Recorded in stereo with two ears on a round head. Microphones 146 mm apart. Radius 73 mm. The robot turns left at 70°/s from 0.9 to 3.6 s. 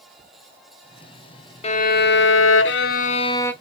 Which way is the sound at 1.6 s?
145° left.